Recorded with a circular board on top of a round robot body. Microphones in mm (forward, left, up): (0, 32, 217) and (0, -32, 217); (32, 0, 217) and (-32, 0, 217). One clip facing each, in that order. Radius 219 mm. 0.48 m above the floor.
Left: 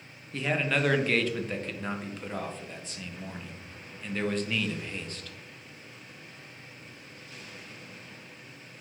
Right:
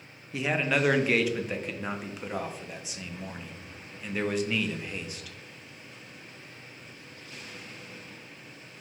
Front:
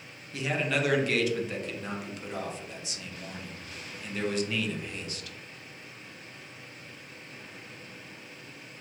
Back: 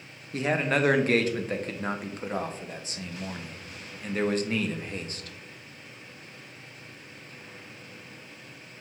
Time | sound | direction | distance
0.3 | a man speaking | 170° right | 0.8 m